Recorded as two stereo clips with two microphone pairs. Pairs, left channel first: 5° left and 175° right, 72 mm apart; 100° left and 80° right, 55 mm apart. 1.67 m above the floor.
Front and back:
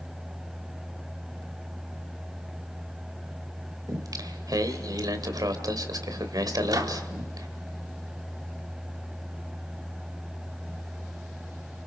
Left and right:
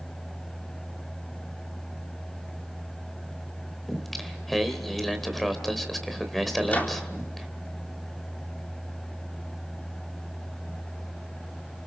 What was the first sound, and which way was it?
Singing, 170° right.